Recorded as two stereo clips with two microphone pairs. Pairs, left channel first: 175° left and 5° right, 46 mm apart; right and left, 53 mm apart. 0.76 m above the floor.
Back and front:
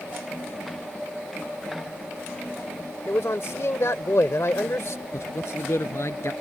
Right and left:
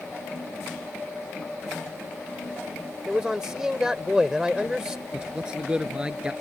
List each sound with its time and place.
3.1 s a man speaking: 165° left
5.1 s a man speaking: 160° left